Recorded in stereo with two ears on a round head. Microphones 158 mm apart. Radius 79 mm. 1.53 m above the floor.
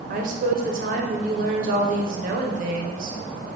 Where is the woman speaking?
45° right (ahead or behind), 0.6 m.